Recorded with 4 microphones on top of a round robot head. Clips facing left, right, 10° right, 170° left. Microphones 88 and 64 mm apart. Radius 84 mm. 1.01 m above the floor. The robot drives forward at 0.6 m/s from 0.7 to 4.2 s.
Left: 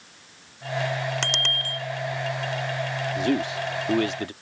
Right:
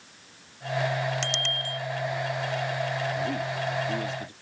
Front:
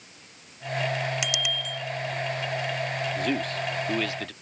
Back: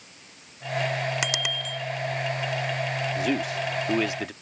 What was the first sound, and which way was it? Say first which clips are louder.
A bicycle bell: left 2 dB, back 1 dB; 125° left.